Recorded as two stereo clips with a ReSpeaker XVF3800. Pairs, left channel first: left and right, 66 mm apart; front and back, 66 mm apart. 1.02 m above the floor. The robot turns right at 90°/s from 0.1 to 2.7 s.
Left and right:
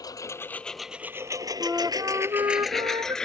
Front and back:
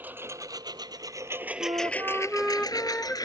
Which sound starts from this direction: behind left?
A lawn mower, at 0.0 s.